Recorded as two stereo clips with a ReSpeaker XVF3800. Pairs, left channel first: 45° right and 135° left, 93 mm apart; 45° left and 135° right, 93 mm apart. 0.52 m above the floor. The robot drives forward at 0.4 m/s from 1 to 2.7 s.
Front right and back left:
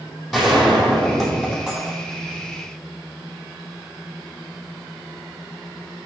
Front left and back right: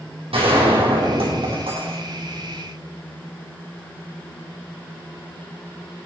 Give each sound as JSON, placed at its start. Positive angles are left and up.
{"t": 0.3, "sound": "a gunshot", "azimuth_deg": -135, "distance_m": 3.5}